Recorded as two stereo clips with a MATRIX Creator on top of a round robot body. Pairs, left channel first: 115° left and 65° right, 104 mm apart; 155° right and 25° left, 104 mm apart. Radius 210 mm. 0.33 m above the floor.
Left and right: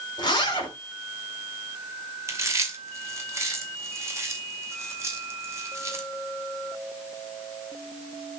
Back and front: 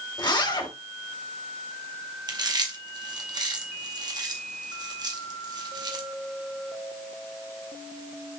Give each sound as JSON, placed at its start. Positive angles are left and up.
{"t": 0.2, "sound": "a zipper", "azimuth_deg": 155, "distance_m": 2.5}
{"t": 2.3, "sound": "chewing", "azimuth_deg": -10, "distance_m": 2.0}